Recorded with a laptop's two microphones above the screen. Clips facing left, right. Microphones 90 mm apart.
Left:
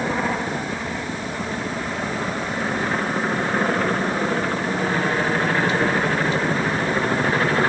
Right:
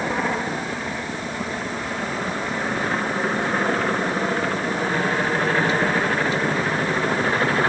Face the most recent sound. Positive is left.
No sound to turn to.